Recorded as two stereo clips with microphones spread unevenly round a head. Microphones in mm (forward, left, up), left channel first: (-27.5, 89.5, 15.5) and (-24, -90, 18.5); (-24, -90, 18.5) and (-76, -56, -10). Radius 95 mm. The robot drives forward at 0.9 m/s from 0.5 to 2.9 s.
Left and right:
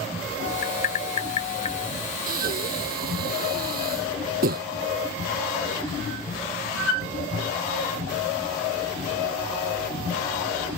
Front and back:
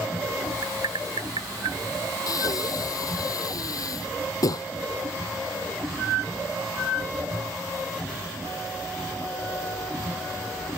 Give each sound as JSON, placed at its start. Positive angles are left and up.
{"t": 0.6, "sound": "tapping", "azimuth_deg": 125}
{"t": 2.3, "sound": "breathing", "azimuth_deg": -40}